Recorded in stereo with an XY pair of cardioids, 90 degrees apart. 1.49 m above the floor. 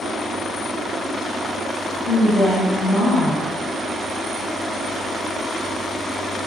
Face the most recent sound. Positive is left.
turn(degrees=65)